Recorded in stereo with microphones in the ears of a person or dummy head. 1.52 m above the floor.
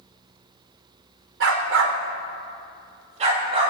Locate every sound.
1.4 s a dog barking: 60° right (ahead or behind), 2.0 m; by 3.7 s 35° right (ahead or behind), 4 m